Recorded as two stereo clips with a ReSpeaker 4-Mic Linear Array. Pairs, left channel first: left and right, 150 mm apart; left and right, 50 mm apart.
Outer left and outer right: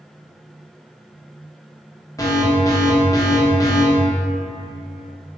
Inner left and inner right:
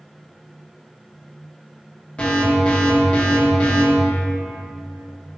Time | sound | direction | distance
2.2 | an alarm | 25° left (ahead or behind) | 0.8 m